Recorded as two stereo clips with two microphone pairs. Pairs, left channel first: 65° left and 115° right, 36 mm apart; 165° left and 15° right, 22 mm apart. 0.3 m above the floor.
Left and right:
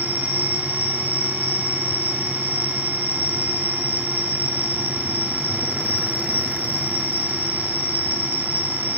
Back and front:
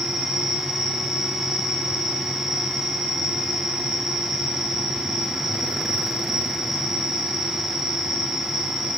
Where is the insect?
90° right, 3 m.